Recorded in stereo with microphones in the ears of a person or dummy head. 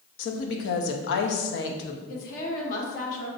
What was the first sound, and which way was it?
A woman speaking, 70° left (ahead or behind).